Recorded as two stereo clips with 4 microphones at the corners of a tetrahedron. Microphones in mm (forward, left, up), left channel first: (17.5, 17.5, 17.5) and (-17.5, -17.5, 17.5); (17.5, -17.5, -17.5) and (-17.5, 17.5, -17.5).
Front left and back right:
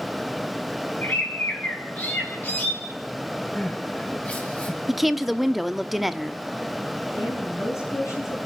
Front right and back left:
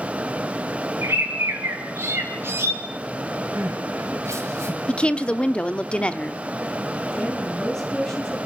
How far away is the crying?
About 6 m.